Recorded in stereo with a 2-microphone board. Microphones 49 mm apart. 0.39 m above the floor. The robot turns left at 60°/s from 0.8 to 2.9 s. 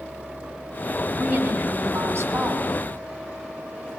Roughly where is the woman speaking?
Ahead right.